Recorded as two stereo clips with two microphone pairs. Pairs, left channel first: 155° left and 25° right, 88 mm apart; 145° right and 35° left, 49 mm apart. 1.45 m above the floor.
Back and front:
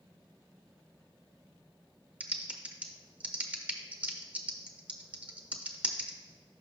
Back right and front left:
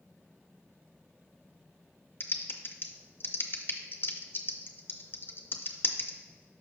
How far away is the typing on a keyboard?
About 0.6 m.